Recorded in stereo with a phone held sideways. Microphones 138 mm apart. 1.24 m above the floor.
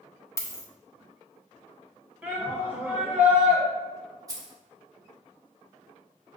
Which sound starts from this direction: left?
A dropped coin, at 0.4 s.